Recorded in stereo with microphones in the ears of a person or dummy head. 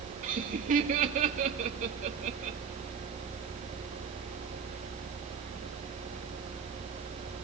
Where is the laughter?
40° right (ahead or behind), 2.5 m.